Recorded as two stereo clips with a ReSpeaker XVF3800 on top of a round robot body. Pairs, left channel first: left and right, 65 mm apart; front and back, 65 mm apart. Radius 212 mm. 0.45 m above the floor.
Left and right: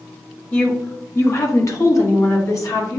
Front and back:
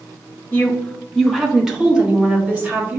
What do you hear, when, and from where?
0.5 s a woman speaking: 45° left, 1.3 m; by 3.0 s 120° left, 2.5 m